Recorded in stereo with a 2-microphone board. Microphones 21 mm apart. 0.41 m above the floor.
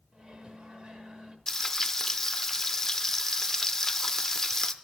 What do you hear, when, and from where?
0.1 s a microwave: 50° right (ahead or behind), 1.0 m
1.5 s frying: 15° left (ahead or behind), 0.5 m